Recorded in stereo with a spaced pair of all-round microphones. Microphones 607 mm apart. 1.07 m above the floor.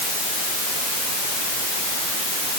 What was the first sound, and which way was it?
Only background noise.